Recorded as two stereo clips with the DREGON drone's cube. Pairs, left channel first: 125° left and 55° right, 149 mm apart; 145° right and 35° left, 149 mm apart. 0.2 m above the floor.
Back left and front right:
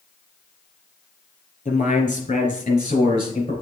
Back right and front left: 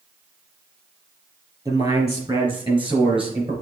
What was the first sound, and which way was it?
A man speaking, 95° left.